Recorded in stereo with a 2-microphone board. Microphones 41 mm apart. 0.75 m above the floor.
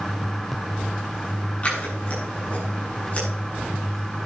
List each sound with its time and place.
1.6 s scissors: 30° left (ahead or behind), 7 m